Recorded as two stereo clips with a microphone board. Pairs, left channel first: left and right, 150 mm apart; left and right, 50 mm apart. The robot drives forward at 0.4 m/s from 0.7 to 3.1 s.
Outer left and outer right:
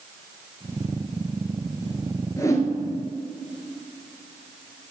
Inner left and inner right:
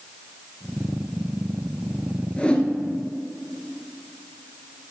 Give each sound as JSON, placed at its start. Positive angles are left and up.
{"t": 2.4, "sound": "a whoosh", "side_deg": 20, "distance_m": 0.8}